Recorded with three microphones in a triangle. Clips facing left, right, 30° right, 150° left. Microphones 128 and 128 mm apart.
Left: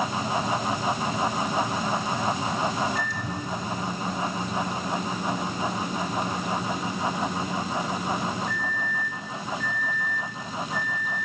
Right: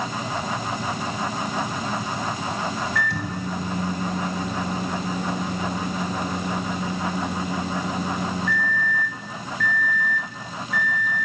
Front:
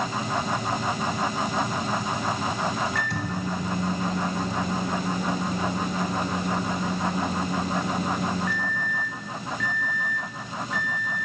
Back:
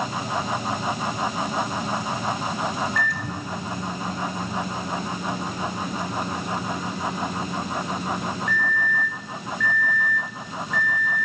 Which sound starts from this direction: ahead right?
A microwave, at 3.0 s.